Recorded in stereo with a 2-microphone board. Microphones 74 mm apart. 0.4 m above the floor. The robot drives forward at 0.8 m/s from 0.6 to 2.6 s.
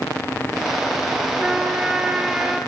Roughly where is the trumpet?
Centre.